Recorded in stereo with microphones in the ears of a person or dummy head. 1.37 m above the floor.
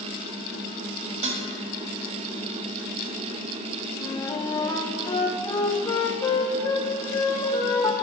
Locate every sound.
1.2 s dishes clattering: 35° right (ahead or behind), 1.0 m
4.0 s a flute: 20° left (ahead or behind), 0.7 m